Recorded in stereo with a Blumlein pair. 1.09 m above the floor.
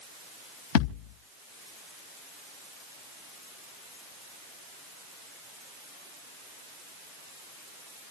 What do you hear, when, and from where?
0.8 s a thud: 50° left, 3.5 m